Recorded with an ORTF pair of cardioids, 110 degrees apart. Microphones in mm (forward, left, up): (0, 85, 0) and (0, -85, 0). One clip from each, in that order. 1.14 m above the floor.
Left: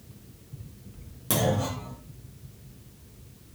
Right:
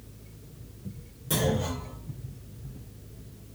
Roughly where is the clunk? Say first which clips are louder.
Left 2 dB; ahead left.